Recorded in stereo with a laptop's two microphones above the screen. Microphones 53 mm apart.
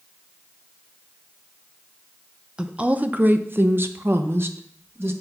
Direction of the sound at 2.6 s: 15° right (ahead or behind).